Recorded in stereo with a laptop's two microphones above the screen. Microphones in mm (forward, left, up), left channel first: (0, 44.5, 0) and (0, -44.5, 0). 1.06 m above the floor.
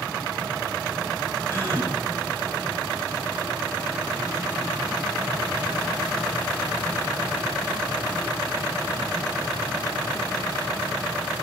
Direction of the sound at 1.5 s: 25° left (ahead or behind).